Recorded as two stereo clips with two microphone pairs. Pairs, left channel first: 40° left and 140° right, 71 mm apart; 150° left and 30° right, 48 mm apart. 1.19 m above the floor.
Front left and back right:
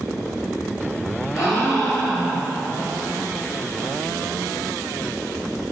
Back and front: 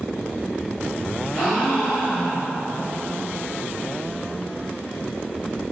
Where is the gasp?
70° left, 1.5 m.